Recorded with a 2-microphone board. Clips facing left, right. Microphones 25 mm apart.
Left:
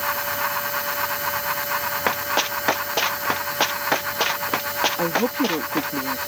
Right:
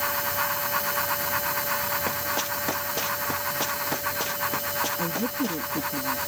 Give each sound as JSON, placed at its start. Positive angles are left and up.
{"t": 2.1, "sound": "running footsteps", "side_deg": 35}
{"t": 5.0, "sound": "a woman speaking", "side_deg": 75}